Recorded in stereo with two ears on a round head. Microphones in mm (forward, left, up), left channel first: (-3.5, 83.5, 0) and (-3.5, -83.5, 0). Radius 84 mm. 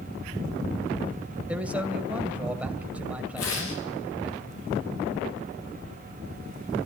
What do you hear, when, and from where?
1.5 s a man speaking: 5° right (ahead or behind), 2.5 m
3.4 s tearing paper: 80° left, 6.5 m